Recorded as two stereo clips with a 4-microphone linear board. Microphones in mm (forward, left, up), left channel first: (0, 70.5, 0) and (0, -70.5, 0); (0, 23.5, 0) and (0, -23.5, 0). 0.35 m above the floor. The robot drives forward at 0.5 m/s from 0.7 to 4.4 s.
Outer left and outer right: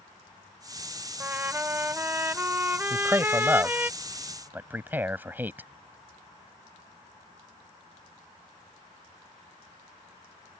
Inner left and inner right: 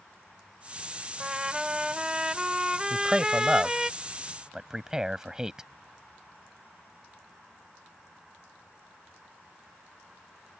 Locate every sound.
1.2 s a trumpet: 15° right (ahead or behind)
2.9 s a man speaking: 20° right (ahead or behind); by 5.7 s 15° right (ahead or behind)